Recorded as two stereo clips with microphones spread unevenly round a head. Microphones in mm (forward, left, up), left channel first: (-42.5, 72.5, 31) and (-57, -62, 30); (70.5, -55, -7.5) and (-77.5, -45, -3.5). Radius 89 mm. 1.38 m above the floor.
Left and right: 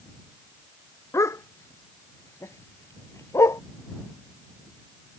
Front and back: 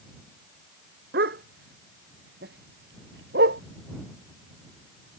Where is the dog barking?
150° left; by 3.6 s 155° left.